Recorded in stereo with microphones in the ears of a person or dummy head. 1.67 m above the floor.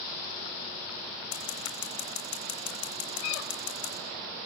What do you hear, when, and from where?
1.3 s scissors: 70° left (ahead or behind), 9 m